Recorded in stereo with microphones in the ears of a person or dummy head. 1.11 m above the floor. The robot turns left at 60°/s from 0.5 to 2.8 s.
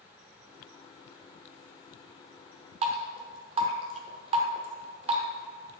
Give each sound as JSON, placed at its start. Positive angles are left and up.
{"t": 2.8, "sound": "dripping", "side_deg": -35, "distance_m": 0.9}